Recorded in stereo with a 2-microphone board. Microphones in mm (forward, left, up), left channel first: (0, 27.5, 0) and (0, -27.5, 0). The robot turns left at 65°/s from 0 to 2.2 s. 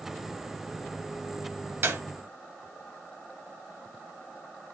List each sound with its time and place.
1.8 s a clap: 45° right (ahead or behind), 1.5 m; by 2.0 s 50° right (ahead or behind), 1.5 m